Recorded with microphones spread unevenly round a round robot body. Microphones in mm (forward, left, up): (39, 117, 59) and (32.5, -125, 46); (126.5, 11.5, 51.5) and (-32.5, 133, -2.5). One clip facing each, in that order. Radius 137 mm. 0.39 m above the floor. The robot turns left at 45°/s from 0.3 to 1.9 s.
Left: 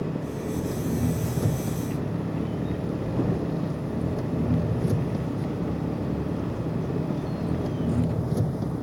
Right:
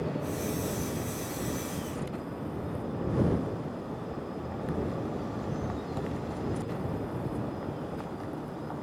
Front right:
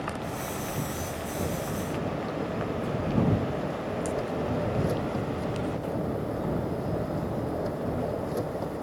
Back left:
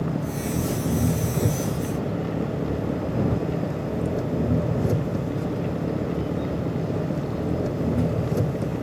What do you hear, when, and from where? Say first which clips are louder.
0.0 s an engine running: left 3 dB, back left 7 dB; 160° left; by 8.8 s 85° left